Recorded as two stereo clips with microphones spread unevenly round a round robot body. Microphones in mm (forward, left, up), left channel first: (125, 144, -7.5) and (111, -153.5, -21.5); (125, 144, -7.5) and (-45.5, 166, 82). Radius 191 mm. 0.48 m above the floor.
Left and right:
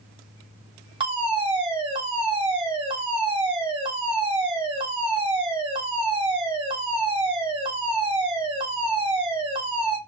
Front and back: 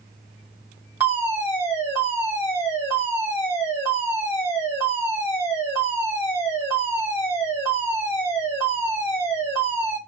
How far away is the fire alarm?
About 2 m.